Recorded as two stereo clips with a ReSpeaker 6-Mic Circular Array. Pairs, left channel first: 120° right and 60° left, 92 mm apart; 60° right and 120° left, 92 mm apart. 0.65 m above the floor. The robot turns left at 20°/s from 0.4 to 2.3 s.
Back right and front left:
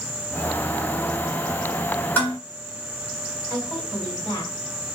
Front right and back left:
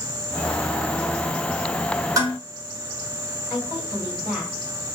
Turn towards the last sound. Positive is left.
turn(degrees=-175)